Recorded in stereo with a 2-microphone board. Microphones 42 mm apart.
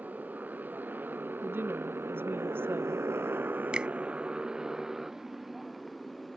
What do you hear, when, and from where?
0.0 s a motorcycle: 45° right (ahead or behind); by 6.4 s 5° left (ahead or behind)
1.4 s a woman speaking: 60° right (ahead or behind)
3.7 s a finger snap: 25° right (ahead or behind)